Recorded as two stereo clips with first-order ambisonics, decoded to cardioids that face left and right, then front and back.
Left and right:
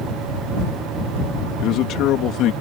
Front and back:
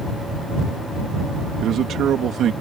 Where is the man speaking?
130° left.